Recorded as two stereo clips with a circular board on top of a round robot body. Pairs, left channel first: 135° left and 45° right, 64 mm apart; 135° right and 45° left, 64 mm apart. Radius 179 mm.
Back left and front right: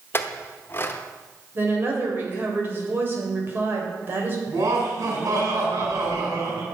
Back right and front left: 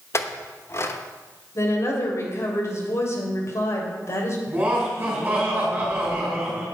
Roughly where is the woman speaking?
Right.